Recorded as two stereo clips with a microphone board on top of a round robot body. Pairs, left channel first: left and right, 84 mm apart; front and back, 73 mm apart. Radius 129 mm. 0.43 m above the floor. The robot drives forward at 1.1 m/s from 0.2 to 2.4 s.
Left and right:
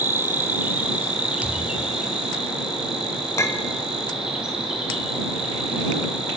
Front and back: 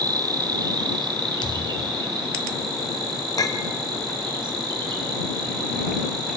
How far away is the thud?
About 1.2 m.